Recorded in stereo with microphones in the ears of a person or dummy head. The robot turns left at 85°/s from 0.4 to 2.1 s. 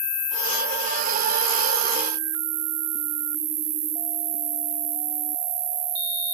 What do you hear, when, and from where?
0.0 s an insect: 15° left, 1.7 m; by 6.3 s 130° right, 1.7 m